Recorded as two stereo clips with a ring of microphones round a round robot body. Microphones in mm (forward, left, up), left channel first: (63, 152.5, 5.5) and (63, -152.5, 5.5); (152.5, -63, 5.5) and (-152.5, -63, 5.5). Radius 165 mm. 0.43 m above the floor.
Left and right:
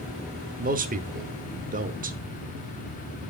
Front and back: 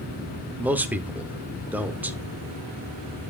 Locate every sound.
0.6 s a man speaking: 100° right, 1.0 m